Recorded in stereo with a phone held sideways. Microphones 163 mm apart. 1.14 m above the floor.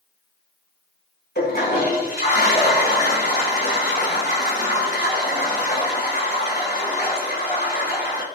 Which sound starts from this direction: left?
A toilet flushing, at 1.4 s.